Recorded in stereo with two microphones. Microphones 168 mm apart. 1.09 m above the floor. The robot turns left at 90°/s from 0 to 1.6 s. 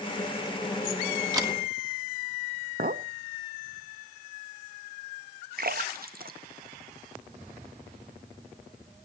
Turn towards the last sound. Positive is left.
turn(degrees=-65)  # may be behind; listen again after turning